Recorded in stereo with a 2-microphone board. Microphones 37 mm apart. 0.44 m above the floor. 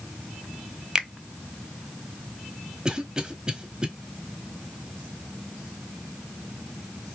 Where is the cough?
20° right (ahead or behind), 1.3 m.